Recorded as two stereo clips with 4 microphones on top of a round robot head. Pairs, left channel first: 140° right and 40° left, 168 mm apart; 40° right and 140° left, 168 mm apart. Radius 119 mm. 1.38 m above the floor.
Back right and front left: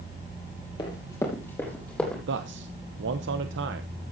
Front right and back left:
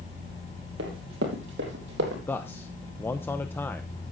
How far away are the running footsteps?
About 3 m.